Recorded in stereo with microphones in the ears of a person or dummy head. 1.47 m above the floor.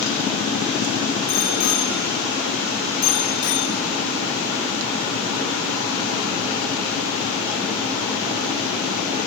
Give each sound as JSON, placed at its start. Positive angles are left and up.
{"t": 1.3, "sound": "a bicycle bell", "side_deg": 85, "distance_m": 5.0}